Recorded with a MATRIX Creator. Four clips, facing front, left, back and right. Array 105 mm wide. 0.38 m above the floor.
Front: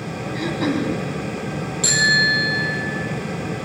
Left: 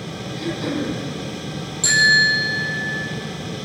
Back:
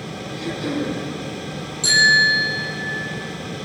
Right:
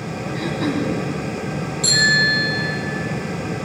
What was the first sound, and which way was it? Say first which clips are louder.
Throat clearing: right 2 dB, front 3 dB; 30° right.